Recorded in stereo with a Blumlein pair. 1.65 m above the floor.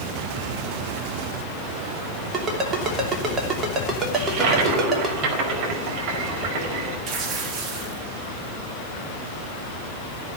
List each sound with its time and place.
2.3 s a ringtone: 20° right, 3 m
4.2 s a toilet flushing: 35° right, 5 m
7.1 s tearing paper: 25° right, 2.5 m